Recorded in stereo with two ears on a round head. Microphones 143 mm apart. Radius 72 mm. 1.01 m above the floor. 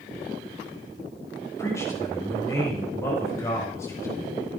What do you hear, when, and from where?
1.6 s a man speaking: 20° left (ahead or behind), 5 m